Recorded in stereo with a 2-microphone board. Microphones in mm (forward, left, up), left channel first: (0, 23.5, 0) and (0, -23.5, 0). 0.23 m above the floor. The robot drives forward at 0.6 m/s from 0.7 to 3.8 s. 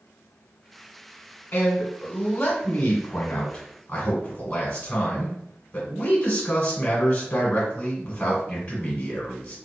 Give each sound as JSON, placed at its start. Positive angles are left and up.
{"t": 1.5, "sound": "a man speaking", "side_deg": 25, "distance_m": 1.1}